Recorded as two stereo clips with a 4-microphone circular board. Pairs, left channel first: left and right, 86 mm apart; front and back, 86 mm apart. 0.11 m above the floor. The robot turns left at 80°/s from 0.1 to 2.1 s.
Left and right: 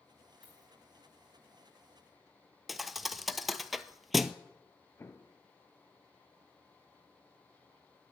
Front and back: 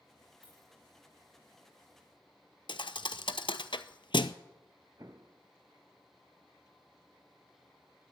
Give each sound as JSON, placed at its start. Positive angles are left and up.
{"t": 0.4, "sound": "a dropped coin", "azimuth_deg": -15, "distance_m": 5.5}
{"t": 2.7, "sound": "a thud", "azimuth_deg": 0, "distance_m": 0.7}
{"t": 5.0, "sound": "an explosion", "azimuth_deg": 140, "distance_m": 0.7}